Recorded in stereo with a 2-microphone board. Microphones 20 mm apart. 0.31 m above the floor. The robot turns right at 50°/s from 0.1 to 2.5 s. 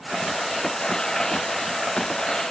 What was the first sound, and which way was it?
Only background noise.